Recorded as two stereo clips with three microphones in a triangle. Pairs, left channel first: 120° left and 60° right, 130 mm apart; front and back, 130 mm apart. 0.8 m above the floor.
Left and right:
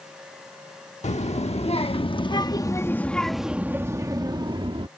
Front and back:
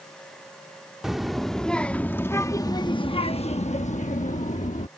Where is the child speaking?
95° left; by 4.9 s 15° right.